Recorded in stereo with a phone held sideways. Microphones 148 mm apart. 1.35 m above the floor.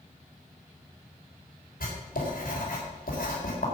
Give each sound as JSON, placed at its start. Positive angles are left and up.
{"t": 1.8, "sound": "writing", "side_deg": 80, "distance_m": 4.0}